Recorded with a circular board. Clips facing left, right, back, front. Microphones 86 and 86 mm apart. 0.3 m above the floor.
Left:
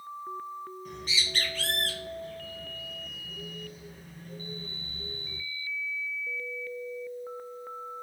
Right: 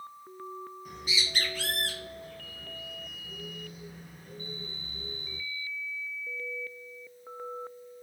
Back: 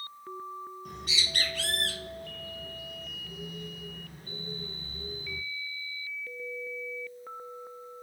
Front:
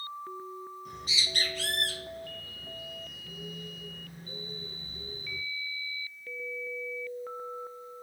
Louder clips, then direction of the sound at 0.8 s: Right 1 dB, even; 170° right.